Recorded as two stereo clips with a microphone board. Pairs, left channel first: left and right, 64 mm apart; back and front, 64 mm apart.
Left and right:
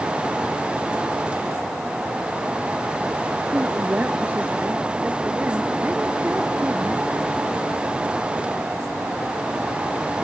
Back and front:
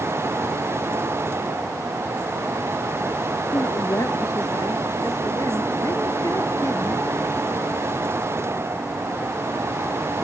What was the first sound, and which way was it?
A woman speaking, 150° right.